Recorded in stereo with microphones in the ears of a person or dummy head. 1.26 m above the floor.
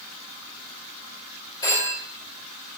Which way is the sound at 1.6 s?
20° left (ahead or behind).